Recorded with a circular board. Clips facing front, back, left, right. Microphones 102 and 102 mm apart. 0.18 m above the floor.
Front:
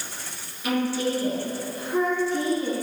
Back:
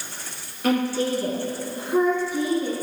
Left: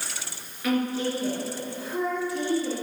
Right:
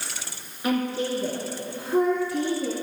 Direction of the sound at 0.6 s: 155° right.